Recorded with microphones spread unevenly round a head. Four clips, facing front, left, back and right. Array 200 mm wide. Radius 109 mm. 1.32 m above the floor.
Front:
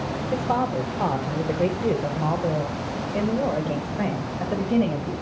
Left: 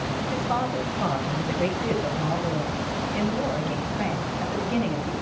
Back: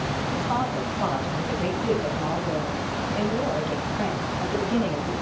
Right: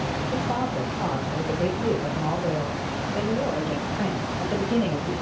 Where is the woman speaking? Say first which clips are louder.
Left 1 dB, front 4 dB; 10° right, 4 m; by 5.1 s 30° right, 6 m.